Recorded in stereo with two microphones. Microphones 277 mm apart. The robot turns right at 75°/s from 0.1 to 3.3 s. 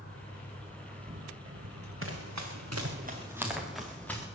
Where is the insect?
125° left, 6 m; by 4.4 s 5° left, 6 m.